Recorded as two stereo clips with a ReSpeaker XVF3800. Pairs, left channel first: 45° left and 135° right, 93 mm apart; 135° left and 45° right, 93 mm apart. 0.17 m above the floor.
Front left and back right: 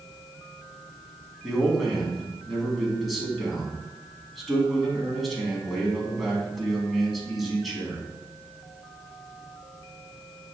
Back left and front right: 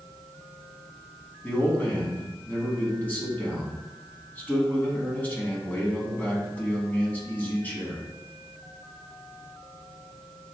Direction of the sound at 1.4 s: 130° left.